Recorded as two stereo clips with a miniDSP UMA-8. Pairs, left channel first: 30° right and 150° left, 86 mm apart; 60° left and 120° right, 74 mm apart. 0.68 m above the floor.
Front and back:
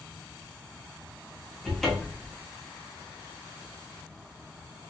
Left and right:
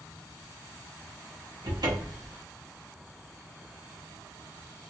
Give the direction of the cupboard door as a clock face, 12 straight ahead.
4 o'clock.